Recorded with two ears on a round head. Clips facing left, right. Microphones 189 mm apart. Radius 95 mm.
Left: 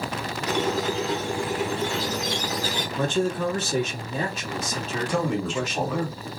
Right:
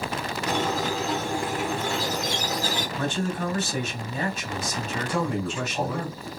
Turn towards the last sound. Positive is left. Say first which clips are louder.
# left 2 dB
turn(degrees=65)  # may be behind; listen again after turning